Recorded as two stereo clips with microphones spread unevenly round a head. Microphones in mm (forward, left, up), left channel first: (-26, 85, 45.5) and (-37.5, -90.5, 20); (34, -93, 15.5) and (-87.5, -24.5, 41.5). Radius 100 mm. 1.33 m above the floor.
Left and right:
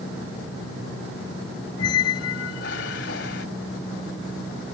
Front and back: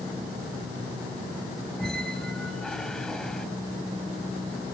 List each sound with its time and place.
1.8 s a squeak: 65° left